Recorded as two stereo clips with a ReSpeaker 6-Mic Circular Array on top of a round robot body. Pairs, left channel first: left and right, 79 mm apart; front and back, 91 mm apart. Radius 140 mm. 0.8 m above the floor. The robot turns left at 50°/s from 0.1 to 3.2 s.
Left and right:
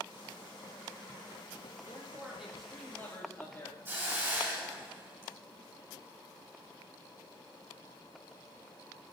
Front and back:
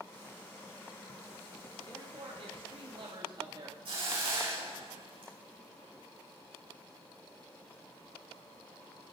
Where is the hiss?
155° right, 5 m.